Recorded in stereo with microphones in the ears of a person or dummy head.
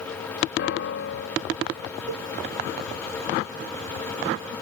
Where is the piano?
65° left (ahead or behind).